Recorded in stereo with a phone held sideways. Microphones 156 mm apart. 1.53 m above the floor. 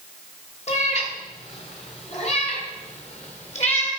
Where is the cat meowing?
45° left (ahead or behind), 1.5 m.